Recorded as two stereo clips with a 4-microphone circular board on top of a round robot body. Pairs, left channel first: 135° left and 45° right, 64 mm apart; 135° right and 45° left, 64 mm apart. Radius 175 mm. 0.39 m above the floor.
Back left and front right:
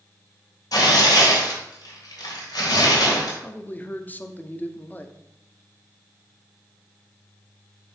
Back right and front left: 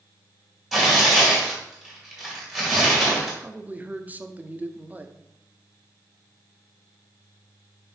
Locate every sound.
0.7 s tearing paper: 130° left, 2.5 m
3.4 s a man speaking: 90° left, 0.8 m